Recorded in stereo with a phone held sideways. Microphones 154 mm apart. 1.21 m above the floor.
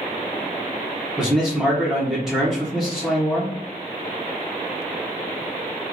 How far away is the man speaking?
About 0.9 m.